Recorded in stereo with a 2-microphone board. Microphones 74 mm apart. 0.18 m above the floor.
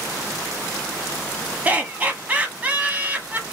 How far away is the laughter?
About 1.0 m.